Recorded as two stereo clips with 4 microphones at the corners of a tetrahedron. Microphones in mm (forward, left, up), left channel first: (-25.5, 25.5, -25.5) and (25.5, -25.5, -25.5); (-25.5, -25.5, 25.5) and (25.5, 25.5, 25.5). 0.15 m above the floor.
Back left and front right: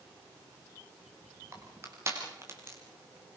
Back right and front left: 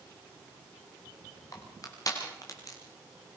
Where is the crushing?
95° right, 7 m.